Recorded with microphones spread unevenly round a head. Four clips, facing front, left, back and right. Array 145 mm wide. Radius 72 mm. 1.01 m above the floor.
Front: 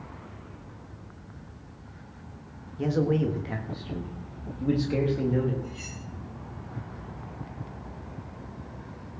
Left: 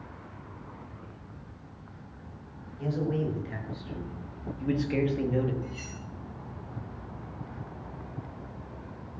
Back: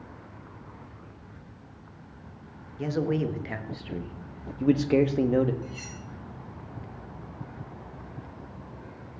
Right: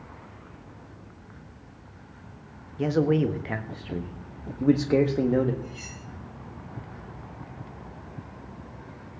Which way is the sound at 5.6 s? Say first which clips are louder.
Left 1 dB, even; 170° left.